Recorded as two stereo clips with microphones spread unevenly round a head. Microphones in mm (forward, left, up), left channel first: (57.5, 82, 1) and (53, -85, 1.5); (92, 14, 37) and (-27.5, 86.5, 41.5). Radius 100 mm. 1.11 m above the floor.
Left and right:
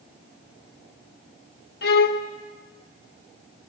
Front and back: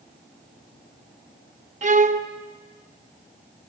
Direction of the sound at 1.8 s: 120° left.